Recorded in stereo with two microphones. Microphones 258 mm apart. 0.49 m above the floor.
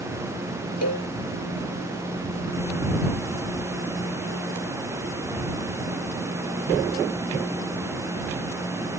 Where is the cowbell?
80° left.